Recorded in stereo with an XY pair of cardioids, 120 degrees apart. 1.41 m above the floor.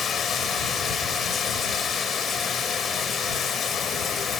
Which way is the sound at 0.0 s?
45° left.